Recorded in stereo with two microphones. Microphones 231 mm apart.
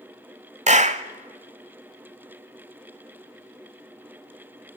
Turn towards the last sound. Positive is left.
turn(degrees=-30)  # may be behind; listen again after turning